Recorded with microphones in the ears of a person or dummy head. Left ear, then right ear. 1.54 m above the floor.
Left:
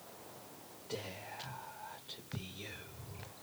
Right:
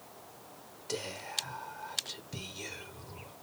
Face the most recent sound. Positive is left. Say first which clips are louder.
# right 7 dB
turn(degrees=-80)